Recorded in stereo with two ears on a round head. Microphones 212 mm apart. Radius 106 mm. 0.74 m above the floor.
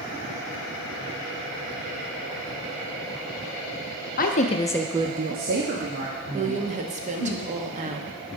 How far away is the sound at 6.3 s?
About 0.8 m.